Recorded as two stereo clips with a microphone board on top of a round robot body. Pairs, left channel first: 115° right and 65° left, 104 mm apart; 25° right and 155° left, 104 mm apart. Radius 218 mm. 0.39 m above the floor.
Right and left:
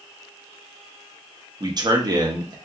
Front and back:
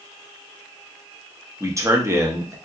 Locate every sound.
1.6 s a man speaking: 105° left, 1.0 m